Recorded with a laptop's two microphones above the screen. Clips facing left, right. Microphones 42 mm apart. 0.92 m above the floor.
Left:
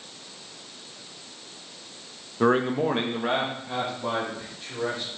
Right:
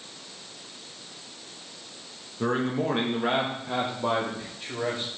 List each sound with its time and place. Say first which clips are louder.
2.4 s a man speaking: left 4 dB; 40° left (ahead or behind), 0.7 m; by 5.1 s 40° right (ahead or behind), 2.5 m